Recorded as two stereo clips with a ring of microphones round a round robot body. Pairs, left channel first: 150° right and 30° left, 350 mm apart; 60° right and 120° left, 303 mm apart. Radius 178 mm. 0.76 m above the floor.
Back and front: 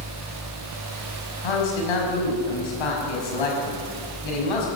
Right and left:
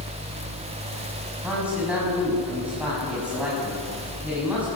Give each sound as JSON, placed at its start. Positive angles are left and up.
{"t": 1.4, "sound": "a man speaking", "azimuth_deg": -155, "distance_m": 5.5}